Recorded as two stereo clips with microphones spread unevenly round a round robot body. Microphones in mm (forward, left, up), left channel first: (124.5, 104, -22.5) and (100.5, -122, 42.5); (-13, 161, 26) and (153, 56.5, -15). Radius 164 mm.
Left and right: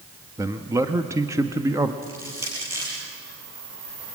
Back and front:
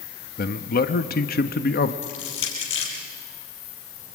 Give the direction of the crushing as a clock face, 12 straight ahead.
6 o'clock.